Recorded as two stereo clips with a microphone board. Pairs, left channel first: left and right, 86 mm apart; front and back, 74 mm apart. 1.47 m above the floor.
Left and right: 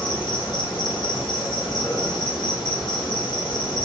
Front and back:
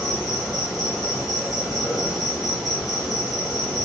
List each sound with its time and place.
0.0 s an insect: 95° left, 1.7 m